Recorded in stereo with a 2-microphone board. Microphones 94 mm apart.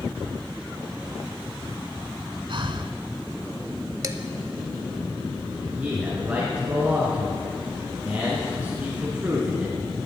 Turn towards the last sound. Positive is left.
turn(degrees=-20)  # may be behind; listen again after turning